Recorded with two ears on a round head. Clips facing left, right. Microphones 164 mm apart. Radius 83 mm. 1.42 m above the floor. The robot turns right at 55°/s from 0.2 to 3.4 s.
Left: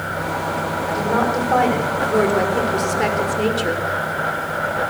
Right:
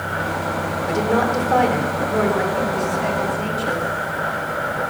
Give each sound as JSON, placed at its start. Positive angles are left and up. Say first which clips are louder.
{"t": 0.9, "sound": "a woman speaking", "louder": "right 1 dB", "azimuth_deg": -40, "distance_m": 4.5}